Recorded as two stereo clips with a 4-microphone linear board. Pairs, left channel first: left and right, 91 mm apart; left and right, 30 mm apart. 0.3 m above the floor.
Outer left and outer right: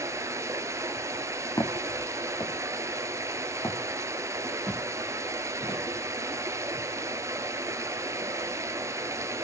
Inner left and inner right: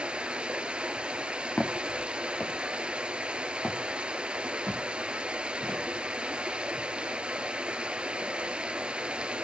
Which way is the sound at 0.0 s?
35° right (ahead or behind).